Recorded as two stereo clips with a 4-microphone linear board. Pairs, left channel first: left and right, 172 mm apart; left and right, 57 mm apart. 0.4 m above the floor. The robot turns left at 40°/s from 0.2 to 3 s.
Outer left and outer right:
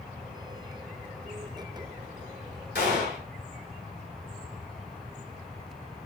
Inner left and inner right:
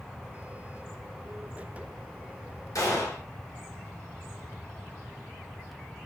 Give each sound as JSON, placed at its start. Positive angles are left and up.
{"t": 2.8, "sound": "a gunshot", "side_deg": 80, "distance_m": 1.0}